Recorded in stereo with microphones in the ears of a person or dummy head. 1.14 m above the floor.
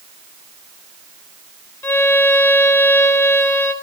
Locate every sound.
1.8 s a violin: 20° left (ahead or behind), 0.7 m